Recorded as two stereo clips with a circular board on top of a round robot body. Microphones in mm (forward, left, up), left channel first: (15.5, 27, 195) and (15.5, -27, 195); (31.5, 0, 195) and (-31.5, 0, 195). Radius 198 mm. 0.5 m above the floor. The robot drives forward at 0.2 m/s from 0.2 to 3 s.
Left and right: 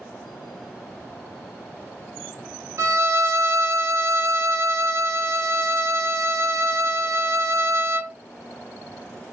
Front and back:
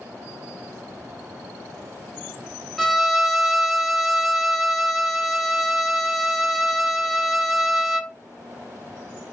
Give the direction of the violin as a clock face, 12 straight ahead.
3 o'clock.